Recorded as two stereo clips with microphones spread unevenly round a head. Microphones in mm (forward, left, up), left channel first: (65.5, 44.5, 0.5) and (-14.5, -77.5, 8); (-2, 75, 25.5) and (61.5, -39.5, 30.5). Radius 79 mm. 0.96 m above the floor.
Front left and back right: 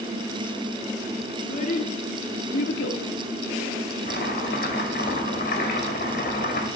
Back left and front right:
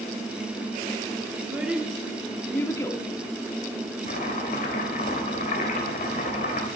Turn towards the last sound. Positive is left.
turn(degrees=100)